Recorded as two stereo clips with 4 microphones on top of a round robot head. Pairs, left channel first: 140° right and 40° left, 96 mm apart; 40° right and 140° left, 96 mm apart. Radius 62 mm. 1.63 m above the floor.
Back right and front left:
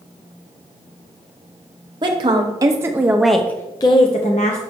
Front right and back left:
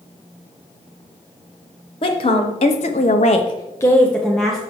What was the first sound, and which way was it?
A woman speaking, 5° right.